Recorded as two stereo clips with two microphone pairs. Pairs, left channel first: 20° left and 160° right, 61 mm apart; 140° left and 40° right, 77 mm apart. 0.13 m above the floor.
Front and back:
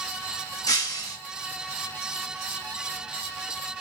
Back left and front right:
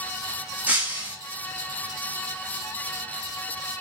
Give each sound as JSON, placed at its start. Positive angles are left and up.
{"t": 0.7, "sound": "breaking glass", "azimuth_deg": 30, "distance_m": 2.5}